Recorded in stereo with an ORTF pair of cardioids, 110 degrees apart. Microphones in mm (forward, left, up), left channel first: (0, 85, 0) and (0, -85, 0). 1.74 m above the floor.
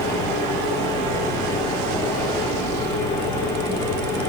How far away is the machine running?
About 4 m.